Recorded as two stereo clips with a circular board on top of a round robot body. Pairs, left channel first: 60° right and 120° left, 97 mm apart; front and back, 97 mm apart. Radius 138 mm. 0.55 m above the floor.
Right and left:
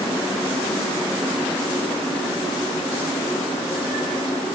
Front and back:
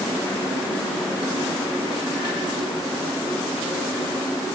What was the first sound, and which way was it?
Only background noise.